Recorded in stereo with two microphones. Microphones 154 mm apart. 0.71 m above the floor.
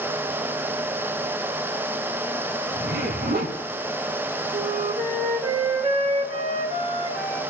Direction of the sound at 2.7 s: 75° right (ahead or behind).